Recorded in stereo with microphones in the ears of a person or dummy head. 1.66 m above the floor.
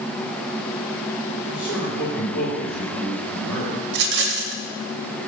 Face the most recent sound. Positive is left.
turn(degrees=-65)  # may be behind; listen again after turning